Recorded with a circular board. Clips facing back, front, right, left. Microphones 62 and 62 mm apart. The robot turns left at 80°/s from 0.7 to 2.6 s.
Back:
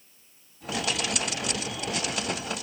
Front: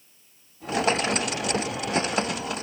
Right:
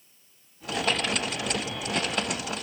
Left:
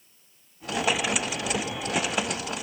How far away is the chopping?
No chopping in this recording.